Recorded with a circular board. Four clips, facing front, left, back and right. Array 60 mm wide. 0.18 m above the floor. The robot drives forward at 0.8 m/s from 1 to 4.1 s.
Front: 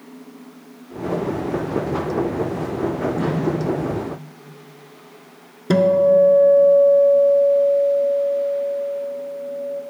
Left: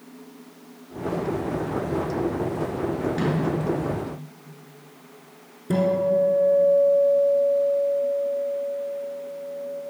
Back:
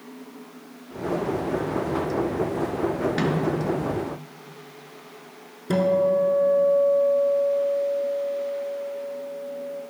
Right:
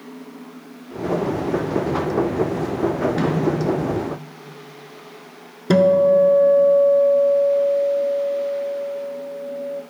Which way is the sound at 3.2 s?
165° right.